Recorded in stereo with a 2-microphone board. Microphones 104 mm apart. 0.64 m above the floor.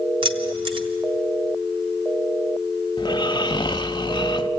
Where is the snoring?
50° left (ahead or behind), 0.7 m.